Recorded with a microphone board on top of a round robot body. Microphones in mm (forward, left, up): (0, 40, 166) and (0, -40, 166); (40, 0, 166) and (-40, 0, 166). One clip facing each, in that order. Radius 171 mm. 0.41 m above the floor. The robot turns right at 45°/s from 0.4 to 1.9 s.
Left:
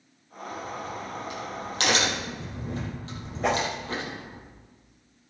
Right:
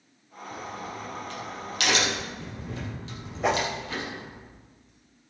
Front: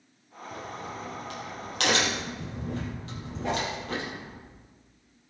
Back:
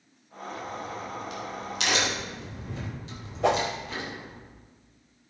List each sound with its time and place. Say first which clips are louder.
0.5 s a crack: left 2 dB, back 2 dB; 25° right, 5.5 m; by 4.4 s 40° left, 5.5 m
3.4 s a whoosh: even, back 6 dB; straight behind, 1.4 m